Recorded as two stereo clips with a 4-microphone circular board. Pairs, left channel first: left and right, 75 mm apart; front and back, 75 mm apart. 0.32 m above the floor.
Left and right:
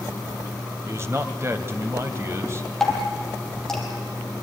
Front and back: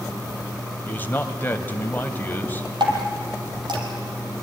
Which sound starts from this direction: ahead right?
A man speaking, at 0.8 s.